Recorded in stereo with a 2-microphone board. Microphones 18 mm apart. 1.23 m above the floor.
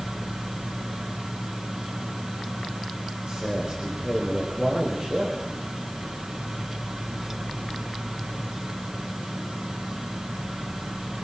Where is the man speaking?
50° right (ahead or behind), 4.5 m.